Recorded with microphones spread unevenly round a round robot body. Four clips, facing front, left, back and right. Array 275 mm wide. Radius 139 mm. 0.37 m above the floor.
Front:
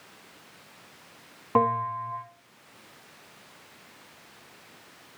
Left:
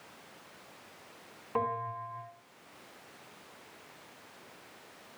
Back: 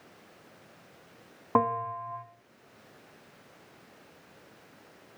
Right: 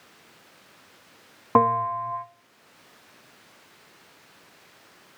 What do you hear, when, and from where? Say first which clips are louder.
1.6 s a bell: right 13 dB, front 3 dB; 85° right, 3 m